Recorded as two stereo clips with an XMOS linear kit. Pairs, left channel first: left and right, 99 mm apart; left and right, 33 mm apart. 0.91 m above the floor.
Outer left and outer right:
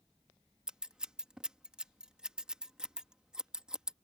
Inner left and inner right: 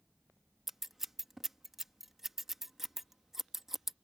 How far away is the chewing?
I don't hear chewing.